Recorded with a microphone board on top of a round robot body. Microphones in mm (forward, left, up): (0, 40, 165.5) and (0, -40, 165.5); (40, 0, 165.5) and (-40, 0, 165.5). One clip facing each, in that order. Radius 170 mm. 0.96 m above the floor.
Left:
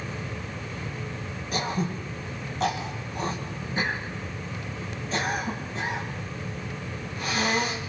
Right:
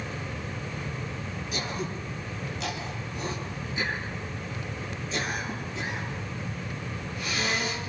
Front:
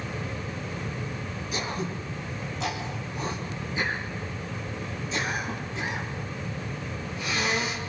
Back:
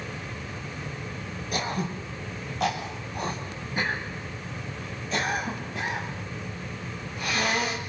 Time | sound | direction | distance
1.5 | throat clearing | 140° left | 4.5 m